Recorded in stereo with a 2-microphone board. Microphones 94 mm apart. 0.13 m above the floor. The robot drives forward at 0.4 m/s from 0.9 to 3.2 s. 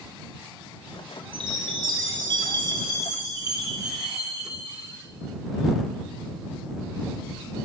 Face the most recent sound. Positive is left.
turn(degrees=-35)  # may be behind; listen again after turning